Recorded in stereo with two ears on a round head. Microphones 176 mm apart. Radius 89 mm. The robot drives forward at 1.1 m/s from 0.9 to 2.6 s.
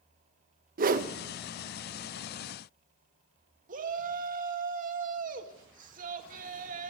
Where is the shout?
45° right (ahead or behind), 2 m.